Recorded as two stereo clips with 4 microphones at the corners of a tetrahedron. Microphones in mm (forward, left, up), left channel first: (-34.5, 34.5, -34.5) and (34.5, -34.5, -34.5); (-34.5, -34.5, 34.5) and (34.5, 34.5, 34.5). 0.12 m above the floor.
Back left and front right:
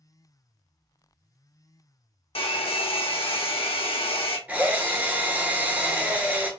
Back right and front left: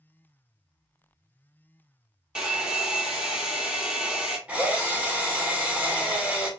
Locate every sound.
2.4 s a hair dryer: 130° left, 0.6 m
4.5 s a drill: 5° right, 0.7 m